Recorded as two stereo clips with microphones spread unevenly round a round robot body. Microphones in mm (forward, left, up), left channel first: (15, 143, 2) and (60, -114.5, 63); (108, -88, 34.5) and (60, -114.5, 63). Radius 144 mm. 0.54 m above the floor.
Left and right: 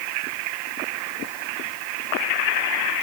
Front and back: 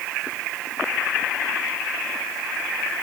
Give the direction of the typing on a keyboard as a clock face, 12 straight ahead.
I don't hear typing on a keyboard.